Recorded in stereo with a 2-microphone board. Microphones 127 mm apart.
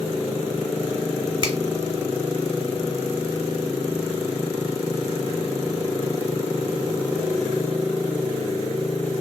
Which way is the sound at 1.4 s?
40° right (ahead or behind).